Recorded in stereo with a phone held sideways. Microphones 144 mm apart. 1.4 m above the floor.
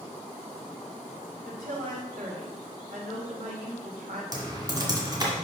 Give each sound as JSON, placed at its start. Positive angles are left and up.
{"t": 1.4, "sound": "a woman speaking", "side_deg": -75, "distance_m": 2.0}
{"t": 4.3, "sound": "typing on a keyboard", "side_deg": -30, "distance_m": 2.0}